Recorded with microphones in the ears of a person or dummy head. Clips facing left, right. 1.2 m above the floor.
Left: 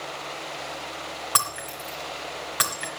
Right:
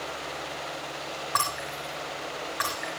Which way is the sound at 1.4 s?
40° left (ahead or behind).